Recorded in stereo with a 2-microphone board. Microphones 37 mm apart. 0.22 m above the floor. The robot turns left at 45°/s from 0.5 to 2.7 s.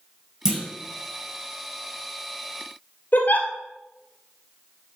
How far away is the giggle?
About 2.0 m.